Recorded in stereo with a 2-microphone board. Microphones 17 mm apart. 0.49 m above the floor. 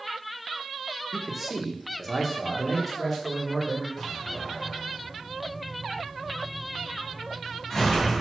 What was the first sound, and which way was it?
A man speaking, 15° right (ahead or behind).